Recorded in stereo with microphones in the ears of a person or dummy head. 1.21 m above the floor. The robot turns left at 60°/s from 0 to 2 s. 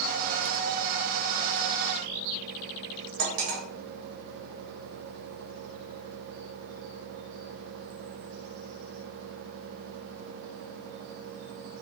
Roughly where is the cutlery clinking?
Right.